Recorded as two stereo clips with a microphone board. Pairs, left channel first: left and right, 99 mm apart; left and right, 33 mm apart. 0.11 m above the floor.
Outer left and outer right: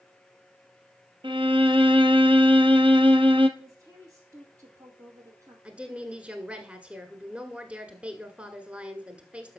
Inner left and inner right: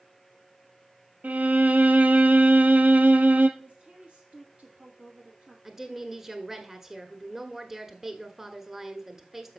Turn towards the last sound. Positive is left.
turn(degrees=-10)  # may be behind; listen again after turning